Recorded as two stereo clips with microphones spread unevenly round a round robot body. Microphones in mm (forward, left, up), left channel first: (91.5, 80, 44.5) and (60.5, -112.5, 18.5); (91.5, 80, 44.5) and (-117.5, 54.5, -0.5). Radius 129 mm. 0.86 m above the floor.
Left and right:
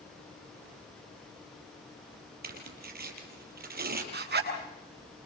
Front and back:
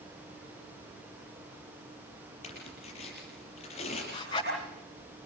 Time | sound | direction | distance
2.4 | tearing paper | 60° right | 5.5 m
4.1 | a zipper | 65° right | 7.5 m